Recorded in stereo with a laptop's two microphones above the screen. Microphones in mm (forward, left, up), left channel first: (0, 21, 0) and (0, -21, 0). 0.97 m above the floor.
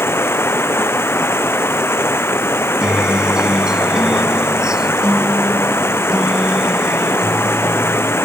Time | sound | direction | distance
0.0 | running water | 65° left (ahead or behind) | ?
2.8 | a guitar | 20° right (ahead or behind) | ?